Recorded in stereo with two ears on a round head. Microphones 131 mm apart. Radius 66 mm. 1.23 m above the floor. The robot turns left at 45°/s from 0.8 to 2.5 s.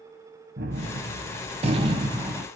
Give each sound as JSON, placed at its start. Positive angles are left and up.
{"t": 0.6, "sound": "a gunshot", "azimuth_deg": -100, "distance_m": 0.6}